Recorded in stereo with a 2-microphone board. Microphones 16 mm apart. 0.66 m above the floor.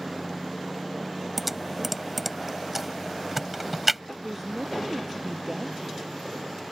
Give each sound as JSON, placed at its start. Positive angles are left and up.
{"t": 1.4, "sound": "typing on a keyboard", "side_deg": -10}
{"t": 4.2, "sound": "a woman speaking", "side_deg": -15}